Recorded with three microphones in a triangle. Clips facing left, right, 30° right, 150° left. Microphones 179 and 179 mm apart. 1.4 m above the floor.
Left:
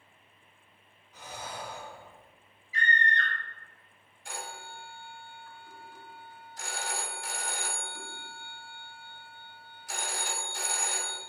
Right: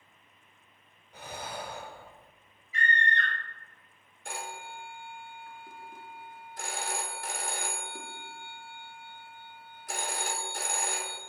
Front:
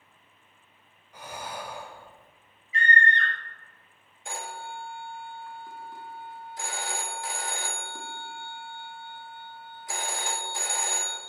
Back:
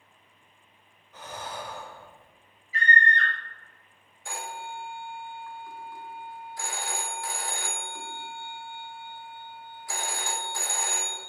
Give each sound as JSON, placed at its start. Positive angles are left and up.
{"t": 1.1, "sound": "breathing", "azimuth_deg": -110, "distance_m": 0.9}
{"t": 2.7, "sound": "a scream", "azimuth_deg": -95, "distance_m": 1.8}
{"t": 4.2, "sound": "a phone ringing", "azimuth_deg": -95, "distance_m": 1.2}